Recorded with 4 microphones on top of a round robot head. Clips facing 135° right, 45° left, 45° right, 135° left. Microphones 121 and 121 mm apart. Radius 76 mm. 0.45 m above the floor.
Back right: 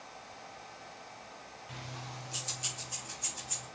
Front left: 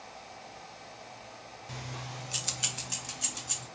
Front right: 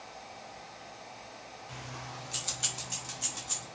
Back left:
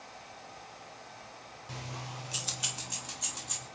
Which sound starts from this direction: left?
Keys jangling, at 1.7 s.